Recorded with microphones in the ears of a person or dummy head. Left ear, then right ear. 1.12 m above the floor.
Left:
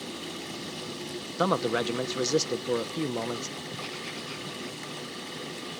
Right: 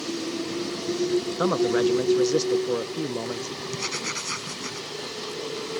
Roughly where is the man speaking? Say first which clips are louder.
Right 2 dB; centre.